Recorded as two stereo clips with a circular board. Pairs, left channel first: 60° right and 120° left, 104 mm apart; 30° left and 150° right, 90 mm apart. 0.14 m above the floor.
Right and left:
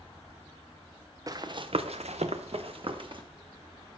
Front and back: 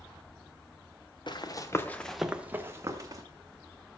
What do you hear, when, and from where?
1.3 s running footsteps: 65° left, 1.1 m; by 3.2 s 160° left, 1.6 m